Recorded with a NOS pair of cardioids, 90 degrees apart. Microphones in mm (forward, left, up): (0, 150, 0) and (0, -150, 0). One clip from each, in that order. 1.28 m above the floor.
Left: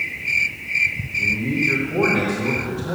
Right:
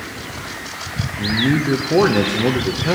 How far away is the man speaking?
About 0.7 m.